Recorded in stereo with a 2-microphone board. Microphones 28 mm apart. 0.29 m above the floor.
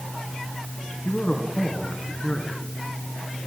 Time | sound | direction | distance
1.1 | a man speaking | 45° left (ahead or behind) | 3 m